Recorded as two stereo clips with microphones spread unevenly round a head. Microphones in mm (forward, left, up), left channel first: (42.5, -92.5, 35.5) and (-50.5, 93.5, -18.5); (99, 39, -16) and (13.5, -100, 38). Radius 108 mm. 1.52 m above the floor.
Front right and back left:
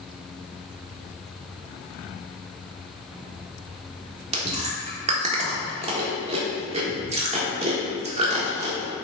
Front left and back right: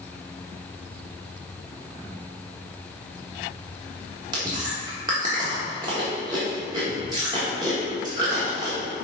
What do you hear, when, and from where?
4.3 s chewing: straight behind, 1.2 m